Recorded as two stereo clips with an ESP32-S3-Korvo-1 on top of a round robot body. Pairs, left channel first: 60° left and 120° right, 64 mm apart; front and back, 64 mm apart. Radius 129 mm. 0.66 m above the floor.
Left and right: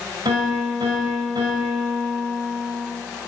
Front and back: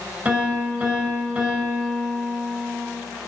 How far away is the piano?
About 2.5 m.